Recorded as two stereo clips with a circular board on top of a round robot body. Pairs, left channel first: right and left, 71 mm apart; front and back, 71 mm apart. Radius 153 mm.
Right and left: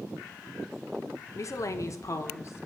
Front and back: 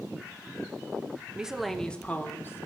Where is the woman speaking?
105° right, 1.3 m; by 2.6 s 45° right, 1.8 m.